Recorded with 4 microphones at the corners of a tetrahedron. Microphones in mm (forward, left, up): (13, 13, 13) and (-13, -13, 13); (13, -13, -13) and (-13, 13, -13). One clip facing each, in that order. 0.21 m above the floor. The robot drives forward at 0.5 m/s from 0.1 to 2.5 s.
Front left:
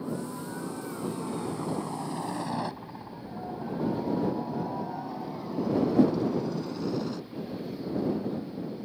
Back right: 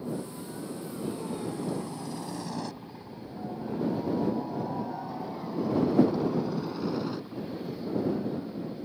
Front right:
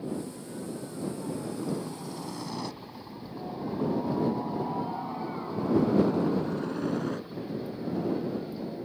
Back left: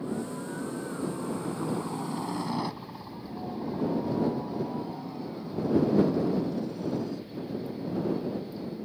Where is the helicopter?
95° left; by 8.8 s 65° right.